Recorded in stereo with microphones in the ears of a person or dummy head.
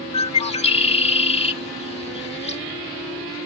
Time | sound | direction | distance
0.1 | a bird | 35° left (ahead or behind) | ?